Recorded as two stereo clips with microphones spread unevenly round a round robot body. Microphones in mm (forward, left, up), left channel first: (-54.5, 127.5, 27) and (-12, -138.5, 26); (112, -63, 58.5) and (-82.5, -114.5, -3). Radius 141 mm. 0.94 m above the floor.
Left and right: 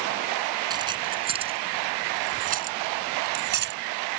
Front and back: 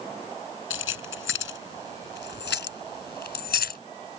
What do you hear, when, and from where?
0.7 s keys jangling: 5° right; by 3.8 s 25° right